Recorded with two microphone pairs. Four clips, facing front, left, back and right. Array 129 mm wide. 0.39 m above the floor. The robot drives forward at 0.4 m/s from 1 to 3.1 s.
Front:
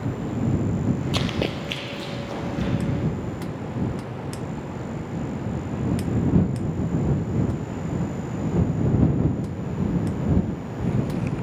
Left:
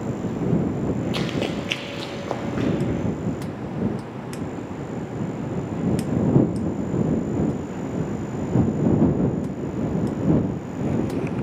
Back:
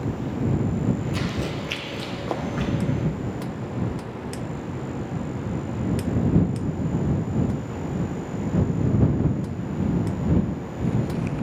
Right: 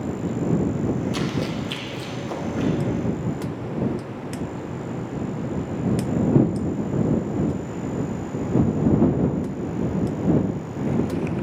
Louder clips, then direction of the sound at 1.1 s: Even, front 2 dB; 10° left.